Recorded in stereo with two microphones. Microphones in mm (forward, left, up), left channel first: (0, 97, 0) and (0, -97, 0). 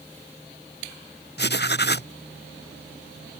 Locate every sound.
1.4 s writing: 60° left (ahead or behind)